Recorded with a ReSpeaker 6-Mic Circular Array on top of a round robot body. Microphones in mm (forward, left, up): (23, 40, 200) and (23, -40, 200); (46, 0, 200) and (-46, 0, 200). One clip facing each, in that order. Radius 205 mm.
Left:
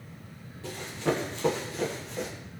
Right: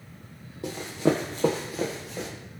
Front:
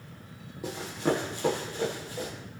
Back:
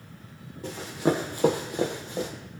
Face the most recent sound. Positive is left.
turn(degrees=180)